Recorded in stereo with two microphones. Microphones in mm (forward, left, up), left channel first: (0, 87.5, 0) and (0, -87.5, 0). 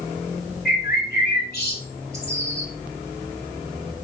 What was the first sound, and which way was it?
A bird, 65° left (ahead or behind).